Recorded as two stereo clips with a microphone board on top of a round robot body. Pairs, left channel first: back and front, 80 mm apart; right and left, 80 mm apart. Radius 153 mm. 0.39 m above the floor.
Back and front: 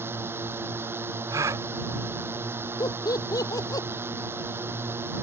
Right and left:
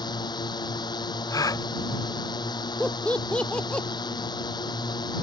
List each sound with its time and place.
0.0 s a drone: 60° right
1.3 s a gasp: 50° right
2.8 s laughter: 165° right